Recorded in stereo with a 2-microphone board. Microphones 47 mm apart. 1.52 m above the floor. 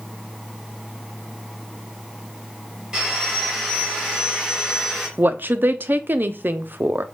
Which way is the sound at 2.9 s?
15° right (ahead or behind).